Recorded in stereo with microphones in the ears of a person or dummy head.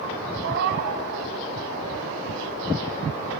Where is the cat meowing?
50° right (ahead or behind), 1.9 m.